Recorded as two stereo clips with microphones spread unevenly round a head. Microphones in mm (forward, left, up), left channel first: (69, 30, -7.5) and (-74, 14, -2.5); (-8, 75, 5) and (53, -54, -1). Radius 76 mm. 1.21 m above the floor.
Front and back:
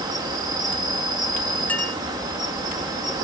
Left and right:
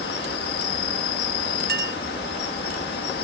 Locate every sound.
0.0 s an insect: 125° left
1.7 s a clink: 75° right